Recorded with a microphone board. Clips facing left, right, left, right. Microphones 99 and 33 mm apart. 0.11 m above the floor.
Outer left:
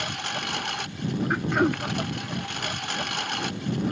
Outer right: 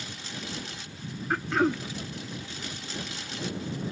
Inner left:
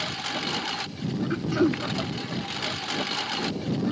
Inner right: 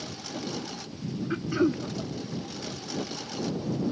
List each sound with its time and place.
0.0 s a lawn mower: 65° left (ahead or behind); by 3.9 s 60° left (ahead or behind)
1.3 s throat clearing: 5° left (ahead or behind)